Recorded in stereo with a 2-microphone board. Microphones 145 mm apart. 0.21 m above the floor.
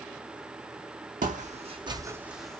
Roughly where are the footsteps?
Right.